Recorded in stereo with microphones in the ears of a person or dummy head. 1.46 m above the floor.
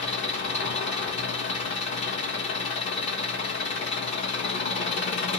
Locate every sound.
0.0 s an engine running: 25° left (ahead or behind), 1.1 m